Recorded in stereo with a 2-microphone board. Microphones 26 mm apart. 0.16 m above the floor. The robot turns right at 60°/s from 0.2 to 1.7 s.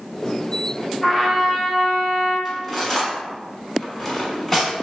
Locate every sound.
1.0 s a trumpet: 145° left, 1.6 m; by 2.4 s 170° right, 1.6 m
2.5 s cutlery clinking: 5° left (ahead or behind), 0.7 m